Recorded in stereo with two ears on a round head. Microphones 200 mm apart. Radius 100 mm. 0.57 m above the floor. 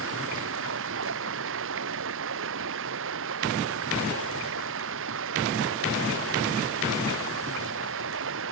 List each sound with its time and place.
0.0 s running water: 65° right (ahead or behind)